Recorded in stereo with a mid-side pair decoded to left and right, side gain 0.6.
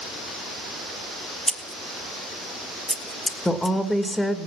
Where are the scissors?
Straight ahead, 1.2 m.